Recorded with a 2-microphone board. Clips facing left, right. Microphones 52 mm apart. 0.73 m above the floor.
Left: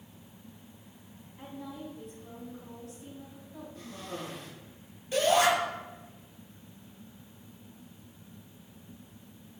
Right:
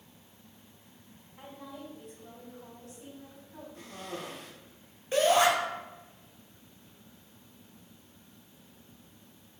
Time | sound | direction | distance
1.4 | a woman speaking | 70° right (ahead or behind) | 3.5 m
3.8 | a cough | 55° right (ahead or behind) | 2 m
5.1 | a shout | 35° right (ahead or behind) | 2.5 m